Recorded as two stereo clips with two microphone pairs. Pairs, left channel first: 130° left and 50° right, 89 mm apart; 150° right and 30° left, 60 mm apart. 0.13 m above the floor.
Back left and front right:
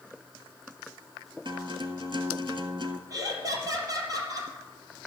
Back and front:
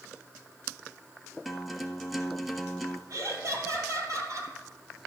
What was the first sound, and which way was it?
A guitar, 60° right.